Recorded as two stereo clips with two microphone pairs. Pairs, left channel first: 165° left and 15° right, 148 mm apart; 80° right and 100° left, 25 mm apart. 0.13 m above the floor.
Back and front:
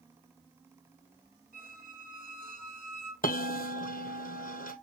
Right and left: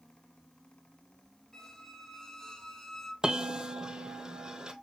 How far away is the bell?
About 1.0 m.